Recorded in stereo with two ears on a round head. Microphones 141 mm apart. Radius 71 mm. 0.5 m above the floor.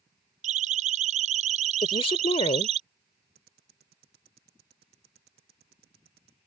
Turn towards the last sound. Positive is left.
turn(degrees=-80)